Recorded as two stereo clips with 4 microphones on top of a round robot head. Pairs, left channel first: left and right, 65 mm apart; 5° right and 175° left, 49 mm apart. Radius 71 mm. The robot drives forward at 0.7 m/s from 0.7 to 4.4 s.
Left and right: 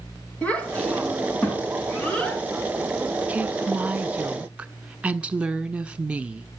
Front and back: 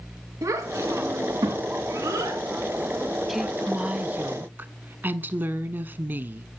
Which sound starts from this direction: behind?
A child speaking, at 0.4 s.